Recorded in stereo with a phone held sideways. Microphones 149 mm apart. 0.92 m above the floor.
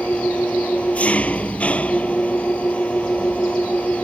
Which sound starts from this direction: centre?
An engine running, at 0.0 s.